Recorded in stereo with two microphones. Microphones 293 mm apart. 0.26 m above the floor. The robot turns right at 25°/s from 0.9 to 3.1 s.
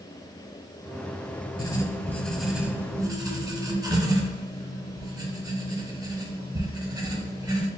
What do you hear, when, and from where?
1.6 s writing: 160° left, 0.6 m; by 7.7 s 160° right, 0.6 m